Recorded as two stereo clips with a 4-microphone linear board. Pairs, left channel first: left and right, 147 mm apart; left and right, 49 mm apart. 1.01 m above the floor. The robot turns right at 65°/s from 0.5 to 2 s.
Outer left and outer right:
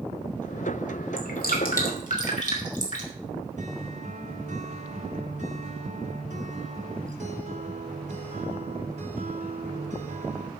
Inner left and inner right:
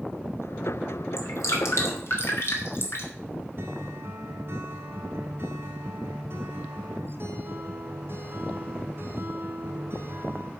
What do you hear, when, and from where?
1.2 s dripping: 70° left (ahead or behind), 2.5 m; by 3.1 s 55° left (ahead or behind), 2.5 m
3.6 s a guitar: 55° right (ahead or behind), 3 m